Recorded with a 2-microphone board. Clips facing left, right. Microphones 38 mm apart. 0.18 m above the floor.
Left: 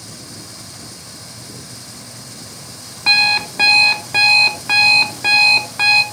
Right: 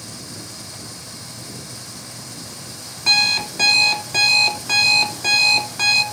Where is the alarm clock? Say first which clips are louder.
Left 4 dB; 25° left (ahead or behind), 0.8 m.